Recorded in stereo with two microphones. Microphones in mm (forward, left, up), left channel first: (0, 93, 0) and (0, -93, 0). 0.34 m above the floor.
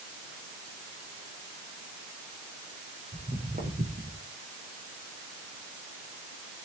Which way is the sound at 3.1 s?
45° right (ahead or behind).